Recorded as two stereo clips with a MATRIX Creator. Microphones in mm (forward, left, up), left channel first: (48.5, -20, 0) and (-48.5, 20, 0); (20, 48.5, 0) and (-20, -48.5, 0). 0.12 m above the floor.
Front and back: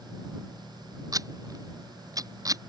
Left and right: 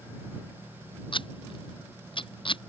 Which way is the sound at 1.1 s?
100° left.